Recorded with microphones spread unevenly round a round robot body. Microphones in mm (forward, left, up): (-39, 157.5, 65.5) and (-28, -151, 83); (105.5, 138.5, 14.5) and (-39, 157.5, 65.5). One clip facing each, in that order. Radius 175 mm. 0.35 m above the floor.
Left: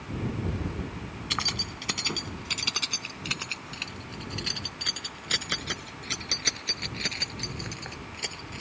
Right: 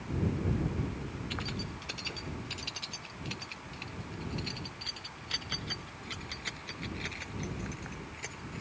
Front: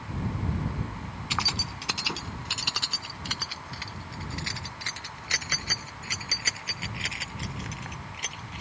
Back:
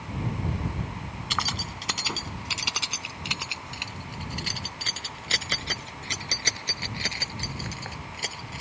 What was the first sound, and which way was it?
Keys jangling, 70° left.